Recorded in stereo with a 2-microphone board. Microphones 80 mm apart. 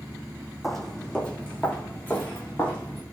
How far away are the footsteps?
About 0.8 m.